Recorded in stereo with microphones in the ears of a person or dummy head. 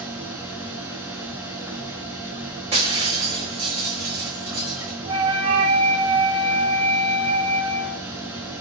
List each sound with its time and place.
0.0 s a machine running: 10° right (ahead or behind), 3.5 m
2.7 s breaking glass: 30° right (ahead or behind), 4.5 m
5.1 s a flute: 30° right (ahead or behind), 1.6 m